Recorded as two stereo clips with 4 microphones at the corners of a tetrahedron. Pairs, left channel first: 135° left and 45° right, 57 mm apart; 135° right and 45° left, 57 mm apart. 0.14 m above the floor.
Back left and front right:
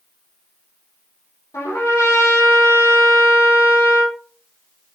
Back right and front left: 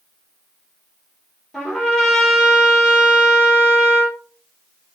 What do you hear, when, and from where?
1.5 s a trumpet: 145° left, 4 m